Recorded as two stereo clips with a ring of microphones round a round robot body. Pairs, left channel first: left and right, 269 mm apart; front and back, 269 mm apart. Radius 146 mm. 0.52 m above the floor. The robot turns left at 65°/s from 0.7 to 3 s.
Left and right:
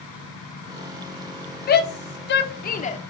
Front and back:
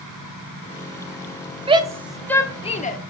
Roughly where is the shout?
Behind left.